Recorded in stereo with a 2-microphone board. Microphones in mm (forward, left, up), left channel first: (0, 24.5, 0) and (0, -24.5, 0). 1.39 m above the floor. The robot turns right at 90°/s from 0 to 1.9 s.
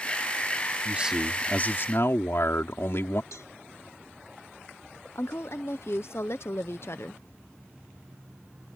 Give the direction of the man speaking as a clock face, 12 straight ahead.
1 o'clock.